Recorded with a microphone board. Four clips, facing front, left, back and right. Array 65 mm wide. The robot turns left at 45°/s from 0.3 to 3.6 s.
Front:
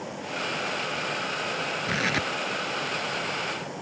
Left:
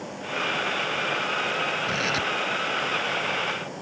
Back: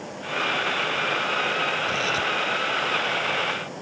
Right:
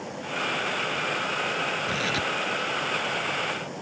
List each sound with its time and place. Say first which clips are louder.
1.9 s tearing paper: left 1 dB, back 2 dB; 20° left; by 2.3 s straight ahead